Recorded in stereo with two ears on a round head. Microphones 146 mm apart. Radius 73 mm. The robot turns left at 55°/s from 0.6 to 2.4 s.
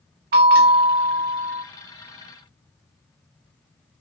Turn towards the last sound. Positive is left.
turn(degrees=160)